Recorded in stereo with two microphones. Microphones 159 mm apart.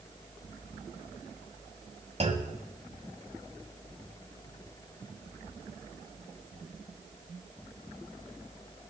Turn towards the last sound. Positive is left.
turn(degrees=-40)  # may be behind; listen again after turning